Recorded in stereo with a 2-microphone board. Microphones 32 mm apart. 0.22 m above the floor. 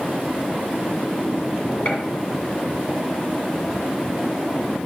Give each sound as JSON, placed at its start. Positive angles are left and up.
{"t": 1.9, "sound": "a gunshot", "side_deg": 50, "distance_m": 2.5}